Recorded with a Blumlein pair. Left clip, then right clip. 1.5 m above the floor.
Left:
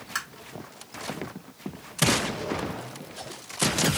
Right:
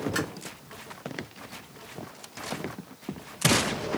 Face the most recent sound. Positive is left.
turn(degrees=45)